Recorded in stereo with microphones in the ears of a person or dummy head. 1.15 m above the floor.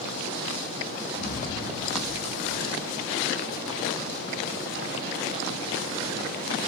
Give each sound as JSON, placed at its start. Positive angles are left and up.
{"t": 1.1, "sound": "an explosion", "side_deg": 10, "distance_m": 1.1}